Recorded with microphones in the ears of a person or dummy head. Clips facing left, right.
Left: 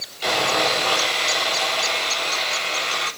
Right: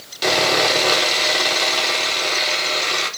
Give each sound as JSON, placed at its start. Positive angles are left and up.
{"t": 0.2, "sound": "sawing", "side_deg": -65, "distance_m": 4.0}